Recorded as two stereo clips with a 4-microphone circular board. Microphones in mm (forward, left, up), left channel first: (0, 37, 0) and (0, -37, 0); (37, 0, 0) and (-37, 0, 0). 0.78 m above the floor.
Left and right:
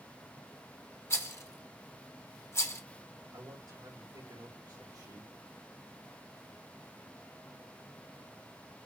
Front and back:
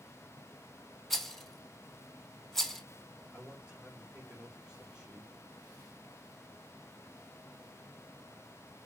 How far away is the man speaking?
About 3.5 m.